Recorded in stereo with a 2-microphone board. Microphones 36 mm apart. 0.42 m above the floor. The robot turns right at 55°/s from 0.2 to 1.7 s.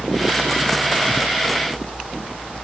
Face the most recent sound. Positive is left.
No sound to turn to.